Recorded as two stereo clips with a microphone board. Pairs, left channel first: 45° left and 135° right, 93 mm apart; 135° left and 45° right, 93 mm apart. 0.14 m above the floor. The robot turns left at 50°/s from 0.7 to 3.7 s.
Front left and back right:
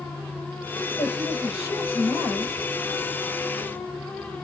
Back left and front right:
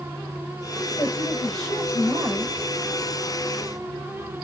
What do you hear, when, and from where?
1.0 s a woman speaking: 75° left, 3.5 m; by 2.5 s straight ahead, 3.5 m